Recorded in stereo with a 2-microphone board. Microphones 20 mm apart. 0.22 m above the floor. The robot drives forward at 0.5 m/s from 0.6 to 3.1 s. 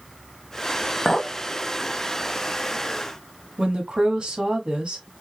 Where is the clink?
20° left (ahead or behind), 0.9 m.